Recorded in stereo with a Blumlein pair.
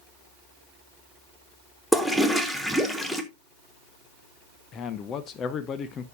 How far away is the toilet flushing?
About 1.2 m.